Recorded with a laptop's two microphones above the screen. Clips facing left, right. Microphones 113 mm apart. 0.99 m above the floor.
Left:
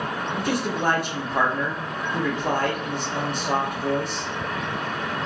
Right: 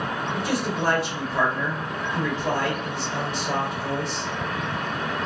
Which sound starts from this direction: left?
A man speaking, at 0.3 s.